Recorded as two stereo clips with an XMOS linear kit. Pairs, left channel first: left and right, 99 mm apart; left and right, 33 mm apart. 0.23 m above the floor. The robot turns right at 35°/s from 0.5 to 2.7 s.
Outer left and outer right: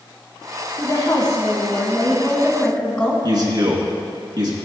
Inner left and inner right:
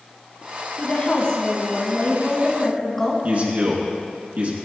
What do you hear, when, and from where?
0.8 s a woman speaking: 95° left, 1.8 m; by 3.1 s 165° left, 1.8 m
3.2 s a man speaking: 50° right (ahead or behind), 2.5 m